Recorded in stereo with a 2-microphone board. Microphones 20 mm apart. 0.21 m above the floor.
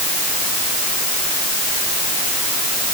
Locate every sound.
Only background noise.